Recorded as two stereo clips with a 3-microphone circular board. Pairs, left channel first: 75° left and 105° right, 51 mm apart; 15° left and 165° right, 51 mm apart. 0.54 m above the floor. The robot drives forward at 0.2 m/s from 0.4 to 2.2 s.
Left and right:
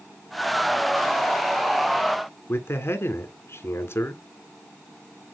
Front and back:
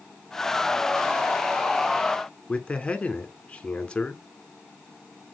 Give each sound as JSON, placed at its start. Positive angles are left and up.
{"t": 2.5, "sound": "a man speaking", "azimuth_deg": 80, "distance_m": 1.5}